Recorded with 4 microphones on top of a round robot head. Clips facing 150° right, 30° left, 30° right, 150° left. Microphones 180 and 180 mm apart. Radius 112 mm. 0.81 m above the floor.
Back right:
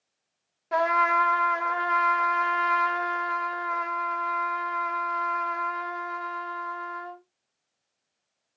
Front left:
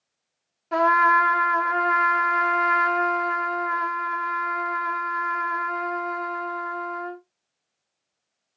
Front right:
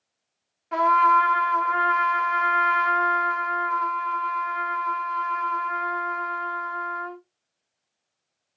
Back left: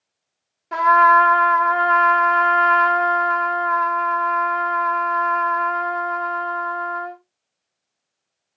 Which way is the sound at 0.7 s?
125° left.